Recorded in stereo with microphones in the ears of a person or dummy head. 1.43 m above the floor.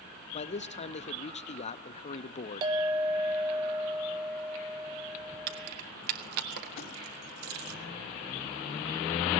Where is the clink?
15° right (ahead or behind), 0.7 m.